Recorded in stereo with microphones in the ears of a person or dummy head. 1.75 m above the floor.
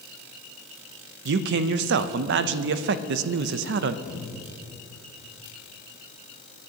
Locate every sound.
1.2 s a man speaking: 65° right (ahead or behind), 0.6 m
4.0 s a cupboard door: 50° left (ahead or behind), 2.5 m